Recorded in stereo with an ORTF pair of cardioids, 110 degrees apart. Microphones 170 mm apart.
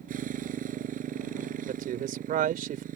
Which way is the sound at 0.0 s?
60° right.